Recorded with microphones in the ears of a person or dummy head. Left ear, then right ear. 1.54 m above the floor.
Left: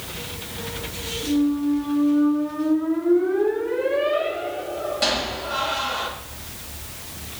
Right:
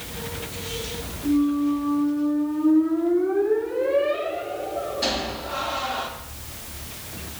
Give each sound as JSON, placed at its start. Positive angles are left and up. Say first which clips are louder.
{"t": 1.2, "sound": "a squeak", "louder": "right 1 dB", "side_deg": 35, "distance_m": 1.3}